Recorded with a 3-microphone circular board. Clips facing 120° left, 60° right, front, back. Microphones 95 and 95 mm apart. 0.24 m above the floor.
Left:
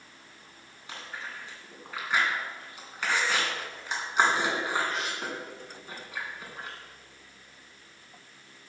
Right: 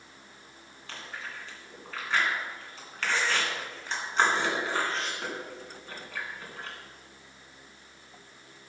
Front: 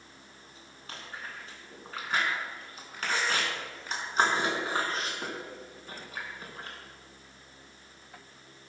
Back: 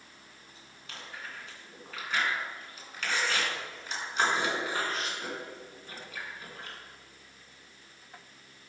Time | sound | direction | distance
0.9 | chewing | 45° left | 3 m